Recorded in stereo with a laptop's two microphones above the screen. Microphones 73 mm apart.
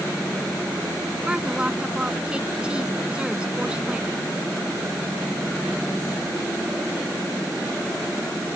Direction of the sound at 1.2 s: 15° right (ahead or behind).